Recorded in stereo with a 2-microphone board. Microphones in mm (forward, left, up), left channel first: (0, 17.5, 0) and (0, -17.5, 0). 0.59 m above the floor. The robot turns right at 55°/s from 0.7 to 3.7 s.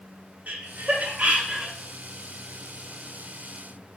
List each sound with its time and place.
0.5 s laughter: 45° right (ahead or behind), 0.8 m; by 1.7 s 25° right (ahead or behind), 0.8 m